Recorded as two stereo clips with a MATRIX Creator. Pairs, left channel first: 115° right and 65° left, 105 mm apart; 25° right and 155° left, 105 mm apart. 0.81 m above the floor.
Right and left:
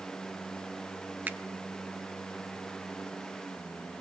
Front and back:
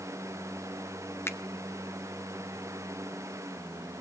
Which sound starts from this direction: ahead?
A finger snap, at 1.3 s.